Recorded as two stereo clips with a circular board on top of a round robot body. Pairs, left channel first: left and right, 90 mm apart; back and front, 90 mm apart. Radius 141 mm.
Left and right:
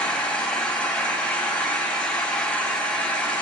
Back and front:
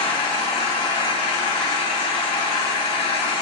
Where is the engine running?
170° left, 1.1 m.